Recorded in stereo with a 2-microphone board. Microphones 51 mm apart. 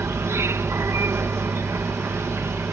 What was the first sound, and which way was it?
An insect, 65° right (ahead or behind).